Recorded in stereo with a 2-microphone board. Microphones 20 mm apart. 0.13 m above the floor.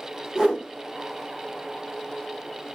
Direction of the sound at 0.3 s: 40° right (ahead or behind).